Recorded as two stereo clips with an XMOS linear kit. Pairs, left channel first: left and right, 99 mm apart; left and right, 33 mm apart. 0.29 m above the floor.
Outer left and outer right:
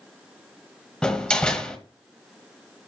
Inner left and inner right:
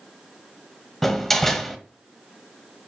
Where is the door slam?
10° left (ahead or behind), 1.0 m.